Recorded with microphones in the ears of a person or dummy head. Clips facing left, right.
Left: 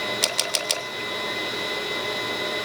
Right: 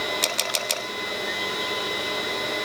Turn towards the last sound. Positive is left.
turn(degrees=10)  # may be behind; listen again after turning